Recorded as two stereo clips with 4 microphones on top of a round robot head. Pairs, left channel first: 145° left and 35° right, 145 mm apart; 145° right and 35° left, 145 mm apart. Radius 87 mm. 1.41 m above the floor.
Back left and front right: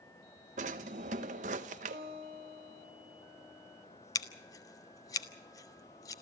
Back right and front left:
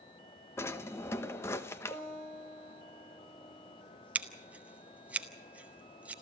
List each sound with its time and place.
0.6 s a drawer: 75° right, 0.8 m
1.9 s a guitar: 70° right, 4 m
4.2 s scissors: 105° left, 0.7 m